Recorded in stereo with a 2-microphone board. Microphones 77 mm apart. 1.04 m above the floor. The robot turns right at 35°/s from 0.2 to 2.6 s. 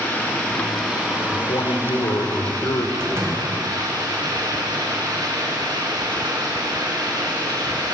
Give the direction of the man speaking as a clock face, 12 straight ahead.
9 o'clock.